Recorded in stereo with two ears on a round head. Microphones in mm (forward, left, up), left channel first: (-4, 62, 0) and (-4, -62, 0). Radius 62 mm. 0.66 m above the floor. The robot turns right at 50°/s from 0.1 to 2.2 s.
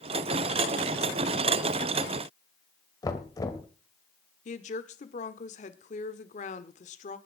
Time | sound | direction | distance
3.0 | knocking | 25° left (ahead or behind) | 2.0 m
4.5 | a woman speaking | 55° left (ahead or behind) | 1.6 m